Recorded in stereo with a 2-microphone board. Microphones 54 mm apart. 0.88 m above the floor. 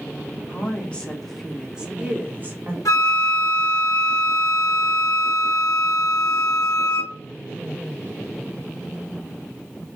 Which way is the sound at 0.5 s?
35° left (ahead or behind).